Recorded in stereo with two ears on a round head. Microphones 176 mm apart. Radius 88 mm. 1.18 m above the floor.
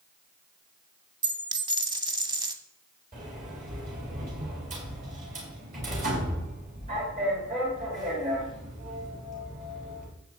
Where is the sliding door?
40° right (ahead or behind), 4.5 m.